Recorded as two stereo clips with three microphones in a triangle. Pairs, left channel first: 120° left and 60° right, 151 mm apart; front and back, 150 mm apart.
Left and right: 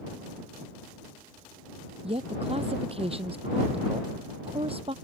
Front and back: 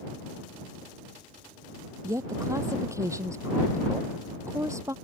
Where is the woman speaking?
110° right.